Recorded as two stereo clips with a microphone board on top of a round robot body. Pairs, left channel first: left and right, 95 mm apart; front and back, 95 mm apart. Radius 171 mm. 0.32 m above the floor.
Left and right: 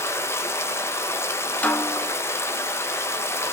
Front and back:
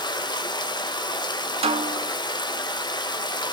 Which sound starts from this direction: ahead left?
Running water, at 0.0 s.